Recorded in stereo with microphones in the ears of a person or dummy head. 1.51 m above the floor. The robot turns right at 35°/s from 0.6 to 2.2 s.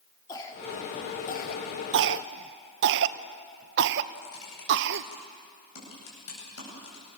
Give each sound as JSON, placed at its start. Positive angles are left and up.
{"t": 0.3, "sound": "a cough", "side_deg": 20, "distance_m": 3.5}
{"t": 1.9, "sound": "a cough", "side_deg": -70, "distance_m": 1.0}
{"t": 4.2, "sound": "typing on a keyboard", "side_deg": 75, "distance_m": 10.0}